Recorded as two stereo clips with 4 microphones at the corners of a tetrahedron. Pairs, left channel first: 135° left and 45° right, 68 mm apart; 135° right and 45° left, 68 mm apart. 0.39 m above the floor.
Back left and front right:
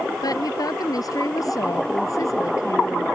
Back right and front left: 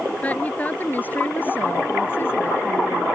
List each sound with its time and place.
0.2 s a woman speaking: 160° left; by 3.1 s 175° left